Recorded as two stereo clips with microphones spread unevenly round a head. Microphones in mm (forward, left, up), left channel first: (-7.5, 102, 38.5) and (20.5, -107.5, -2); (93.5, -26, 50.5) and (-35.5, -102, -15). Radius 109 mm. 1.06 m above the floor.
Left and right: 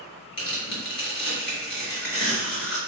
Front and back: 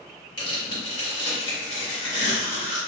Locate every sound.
0.4 s tearing paper: 75° left, 1.6 m